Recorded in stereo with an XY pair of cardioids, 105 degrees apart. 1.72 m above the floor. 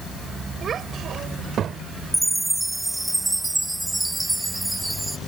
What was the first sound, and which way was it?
A child speaking, 55° right.